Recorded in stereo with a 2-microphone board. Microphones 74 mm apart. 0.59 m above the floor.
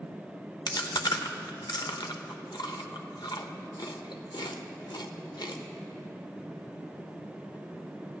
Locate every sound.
0.7 s chewing: 80° left, 0.8 m